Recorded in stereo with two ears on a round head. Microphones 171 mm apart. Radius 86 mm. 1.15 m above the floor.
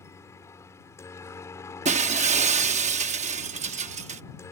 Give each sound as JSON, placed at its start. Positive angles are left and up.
{"t": 0.0, "sound": "a helicopter", "side_deg": 15}
{"t": 1.9, "sound": "breaking glass", "side_deg": -40}